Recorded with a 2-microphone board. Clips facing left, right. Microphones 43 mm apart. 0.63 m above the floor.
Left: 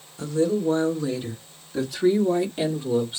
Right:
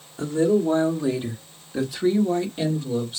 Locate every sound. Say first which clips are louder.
0.2 s a woman speaking: right 3 dB; 30° right (ahead or behind), 2 m; by 3.2 s 25° left (ahead or behind), 1.6 m